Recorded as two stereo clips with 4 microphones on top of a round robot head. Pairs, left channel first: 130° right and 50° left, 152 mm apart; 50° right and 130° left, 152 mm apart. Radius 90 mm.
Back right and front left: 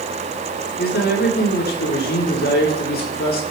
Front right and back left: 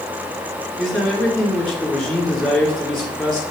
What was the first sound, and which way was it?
A man speaking, 130° right.